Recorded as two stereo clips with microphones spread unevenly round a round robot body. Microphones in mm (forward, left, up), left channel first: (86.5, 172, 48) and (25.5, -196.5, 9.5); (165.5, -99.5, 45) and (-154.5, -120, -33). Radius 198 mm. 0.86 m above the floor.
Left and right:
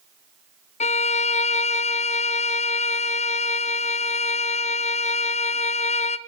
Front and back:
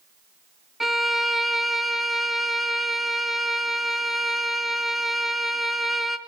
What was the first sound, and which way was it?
A violin, 140° left.